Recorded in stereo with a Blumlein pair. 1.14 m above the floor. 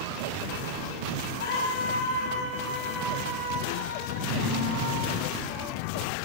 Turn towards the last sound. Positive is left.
turn(degrees=-40)